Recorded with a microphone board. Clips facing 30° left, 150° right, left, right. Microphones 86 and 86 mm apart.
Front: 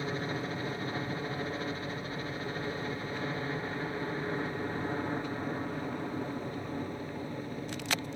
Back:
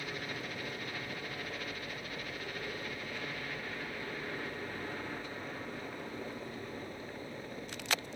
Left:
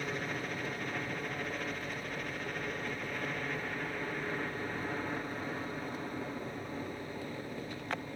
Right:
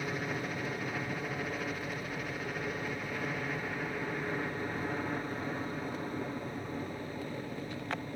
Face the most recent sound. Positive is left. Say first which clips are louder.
# front 7 dB, right 2 dB
turn(degrees=-10)